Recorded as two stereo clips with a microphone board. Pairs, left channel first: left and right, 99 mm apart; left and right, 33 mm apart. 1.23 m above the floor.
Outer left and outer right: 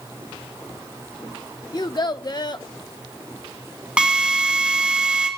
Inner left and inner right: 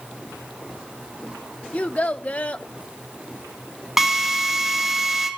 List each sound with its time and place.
1.7 s a child speaking: 45° left (ahead or behind), 0.8 m
4.0 s a drill: 10° right (ahead or behind), 3 m